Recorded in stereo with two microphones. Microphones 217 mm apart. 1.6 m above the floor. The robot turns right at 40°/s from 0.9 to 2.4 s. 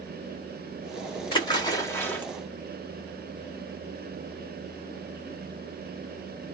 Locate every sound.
1.3 s a splash: 20° left (ahead or behind), 1.2 m; by 2.2 s 5° left (ahead or behind), 1.2 m